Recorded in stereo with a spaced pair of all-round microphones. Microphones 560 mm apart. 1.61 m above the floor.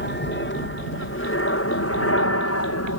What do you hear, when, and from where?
0.0 s an aircraft: 20° left (ahead or behind); by 3.0 s 25° left (ahead or behind)